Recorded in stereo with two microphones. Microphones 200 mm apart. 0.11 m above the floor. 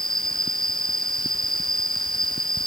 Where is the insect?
50° left (ahead or behind).